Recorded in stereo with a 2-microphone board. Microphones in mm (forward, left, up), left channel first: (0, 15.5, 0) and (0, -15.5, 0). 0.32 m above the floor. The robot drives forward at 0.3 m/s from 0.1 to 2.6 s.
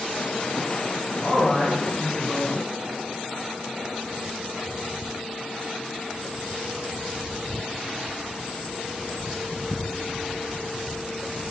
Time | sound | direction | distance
1.2 | a man speaking | 15° right (ahead or behind) | 1.0 m